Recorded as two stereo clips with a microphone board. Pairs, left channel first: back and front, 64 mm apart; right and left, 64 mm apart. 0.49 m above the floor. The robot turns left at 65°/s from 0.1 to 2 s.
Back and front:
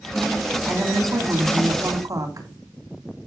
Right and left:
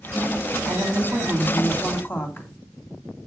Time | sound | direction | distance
0.7 | a woman speaking | 55° left | 3.5 m